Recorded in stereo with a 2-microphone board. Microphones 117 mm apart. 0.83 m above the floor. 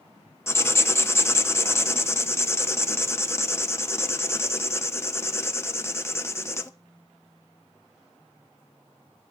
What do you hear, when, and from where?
0.5 s writing: 20° left (ahead or behind), 0.6 m